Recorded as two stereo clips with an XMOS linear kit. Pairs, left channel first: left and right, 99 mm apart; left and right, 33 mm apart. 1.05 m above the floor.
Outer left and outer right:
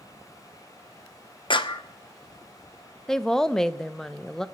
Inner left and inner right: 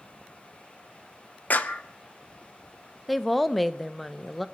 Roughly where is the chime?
No chime in this recording.